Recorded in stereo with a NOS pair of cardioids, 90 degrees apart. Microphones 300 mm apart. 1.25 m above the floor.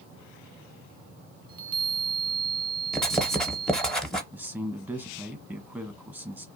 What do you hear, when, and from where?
1.5 s a chime: 15° right, 0.8 m
2.9 s writing: straight ahead, 0.7 m
4.3 s a man speaking: 5° right, 0.9 m